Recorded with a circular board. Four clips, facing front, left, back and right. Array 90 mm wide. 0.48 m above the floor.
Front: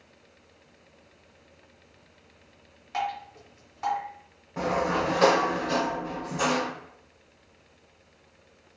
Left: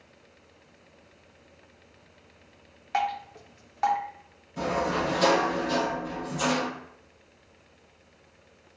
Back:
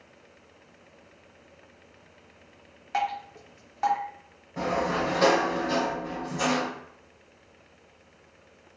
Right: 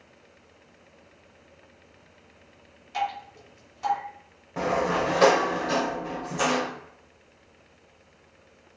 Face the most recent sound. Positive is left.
turn(degrees=-85)